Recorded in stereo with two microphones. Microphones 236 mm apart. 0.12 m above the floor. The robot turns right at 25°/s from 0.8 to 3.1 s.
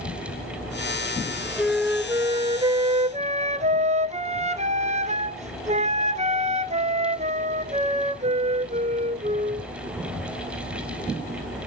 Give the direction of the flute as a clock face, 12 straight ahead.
6 o'clock.